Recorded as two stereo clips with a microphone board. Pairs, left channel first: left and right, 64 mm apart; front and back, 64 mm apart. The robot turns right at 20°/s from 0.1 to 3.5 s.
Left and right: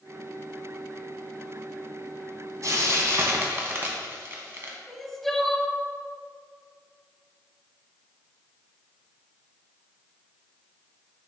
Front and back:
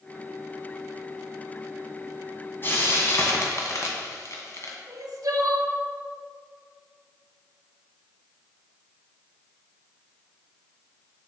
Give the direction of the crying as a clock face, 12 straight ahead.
6 o'clock.